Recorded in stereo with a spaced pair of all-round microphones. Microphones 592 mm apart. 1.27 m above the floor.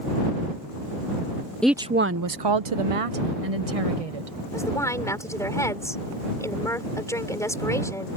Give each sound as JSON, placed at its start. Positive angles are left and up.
{"t": 1.6, "sound": "a woman speaking", "side_deg": 0}
{"t": 4.5, "sound": "a woman speaking", "side_deg": 5}